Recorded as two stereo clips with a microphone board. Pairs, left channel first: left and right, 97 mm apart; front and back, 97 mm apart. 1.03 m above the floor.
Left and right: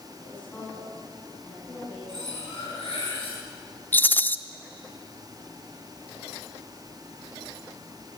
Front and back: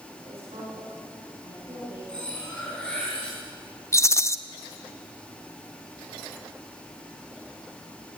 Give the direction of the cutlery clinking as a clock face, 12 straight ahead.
9 o'clock.